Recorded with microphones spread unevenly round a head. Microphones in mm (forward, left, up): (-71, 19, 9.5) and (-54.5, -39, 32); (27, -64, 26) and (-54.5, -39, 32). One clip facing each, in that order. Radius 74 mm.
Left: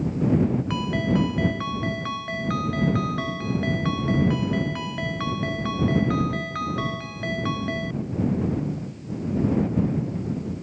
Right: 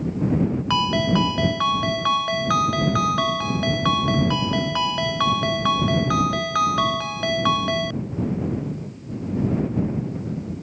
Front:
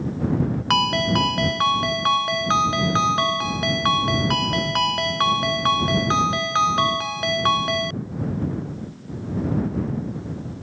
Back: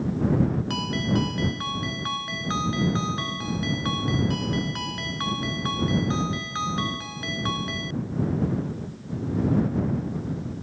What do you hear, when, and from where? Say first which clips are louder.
0.7 s a ringtone: right 4 dB, front 6 dB; 30° right